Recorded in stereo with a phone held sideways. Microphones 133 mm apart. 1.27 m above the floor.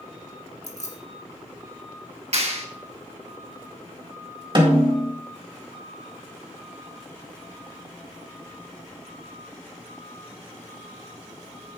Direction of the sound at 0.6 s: 60° left (ahead or behind).